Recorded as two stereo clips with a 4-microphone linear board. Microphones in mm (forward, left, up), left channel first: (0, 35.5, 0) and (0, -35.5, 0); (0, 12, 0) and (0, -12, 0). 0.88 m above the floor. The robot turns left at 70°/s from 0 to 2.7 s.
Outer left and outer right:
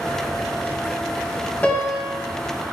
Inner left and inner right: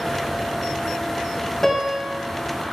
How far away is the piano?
About 0.6 m.